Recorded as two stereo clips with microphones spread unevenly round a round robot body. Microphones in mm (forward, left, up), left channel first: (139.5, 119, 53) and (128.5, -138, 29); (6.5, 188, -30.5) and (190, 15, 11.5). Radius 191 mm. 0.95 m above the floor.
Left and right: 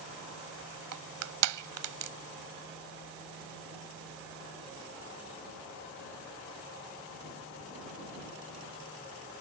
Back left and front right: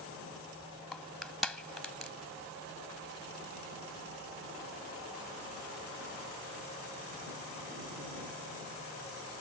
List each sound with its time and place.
0.9 s crushing: 135° right